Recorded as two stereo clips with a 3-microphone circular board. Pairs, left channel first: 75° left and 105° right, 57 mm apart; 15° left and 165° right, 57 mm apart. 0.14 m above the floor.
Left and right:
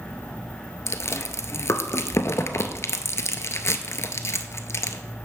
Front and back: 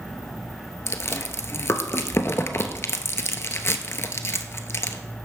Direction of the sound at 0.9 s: 50° left.